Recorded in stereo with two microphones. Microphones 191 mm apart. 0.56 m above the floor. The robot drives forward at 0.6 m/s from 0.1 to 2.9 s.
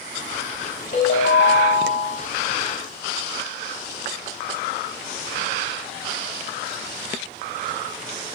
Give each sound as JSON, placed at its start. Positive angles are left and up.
{"t": 0.9, "sound": "a ringtone", "side_deg": 60, "distance_m": 0.9}